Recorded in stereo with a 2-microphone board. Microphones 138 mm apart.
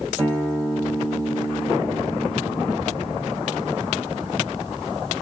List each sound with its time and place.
0.2 s a guitar: 25° right (ahead or behind), 1.9 m